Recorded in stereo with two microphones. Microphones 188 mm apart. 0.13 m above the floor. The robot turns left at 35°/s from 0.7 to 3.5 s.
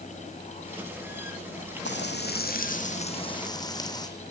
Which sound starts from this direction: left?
Frying, at 1.9 s.